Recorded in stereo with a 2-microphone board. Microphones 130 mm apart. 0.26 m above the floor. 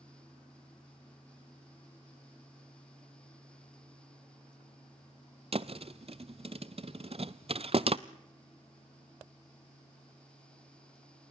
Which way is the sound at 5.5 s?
50° right (ahead or behind).